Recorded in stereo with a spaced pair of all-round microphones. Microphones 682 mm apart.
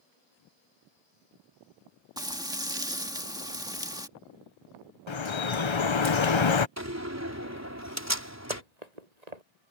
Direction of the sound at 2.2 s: 5° right (ahead or behind).